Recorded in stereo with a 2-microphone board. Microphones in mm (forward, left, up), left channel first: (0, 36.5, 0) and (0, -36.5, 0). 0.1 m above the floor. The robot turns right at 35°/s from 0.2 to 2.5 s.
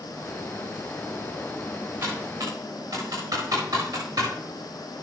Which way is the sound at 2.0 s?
30° right (ahead or behind).